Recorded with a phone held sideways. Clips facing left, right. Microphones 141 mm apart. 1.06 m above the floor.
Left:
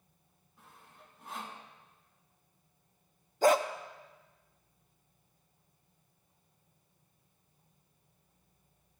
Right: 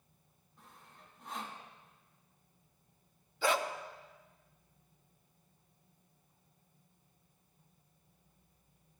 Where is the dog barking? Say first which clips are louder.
Left 7 dB; 40° left (ahead or behind), 0.5 m.